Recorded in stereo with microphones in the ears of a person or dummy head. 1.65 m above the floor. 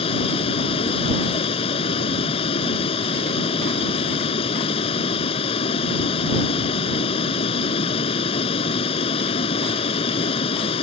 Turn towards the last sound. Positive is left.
turn(degrees=35)  # may be behind; listen again after turning